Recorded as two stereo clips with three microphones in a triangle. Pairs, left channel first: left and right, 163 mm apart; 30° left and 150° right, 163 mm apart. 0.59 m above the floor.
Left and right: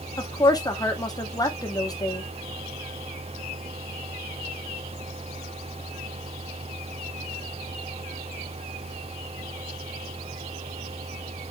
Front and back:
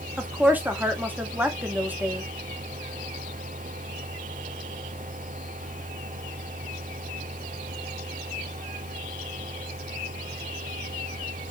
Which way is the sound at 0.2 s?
140° left.